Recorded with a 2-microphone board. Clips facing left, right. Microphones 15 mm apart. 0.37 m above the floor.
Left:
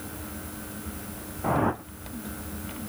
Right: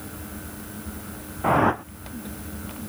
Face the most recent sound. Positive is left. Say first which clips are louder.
# right 6 dB
turn(degrees=-40)  # may be behind; listen again after turning